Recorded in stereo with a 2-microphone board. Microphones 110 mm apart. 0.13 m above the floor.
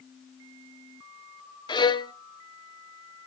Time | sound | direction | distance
1.7 | a violin | 45° left (ahead or behind) | 0.6 m